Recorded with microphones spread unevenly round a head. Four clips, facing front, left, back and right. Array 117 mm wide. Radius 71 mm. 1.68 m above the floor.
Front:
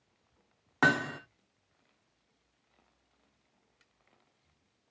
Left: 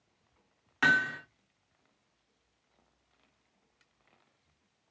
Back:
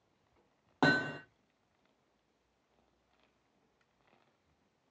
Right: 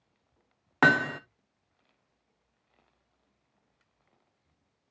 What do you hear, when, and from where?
0.8 s hammering: 100° right, 0.6 m